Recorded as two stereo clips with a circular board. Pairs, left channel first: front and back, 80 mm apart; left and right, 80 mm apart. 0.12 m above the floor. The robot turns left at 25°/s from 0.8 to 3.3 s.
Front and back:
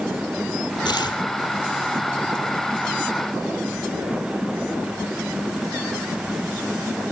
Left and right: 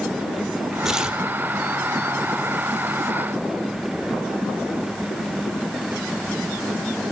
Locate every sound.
0.8 s tearing paper: 5° right, 1.4 m; by 1.2 s 15° right, 1.4 m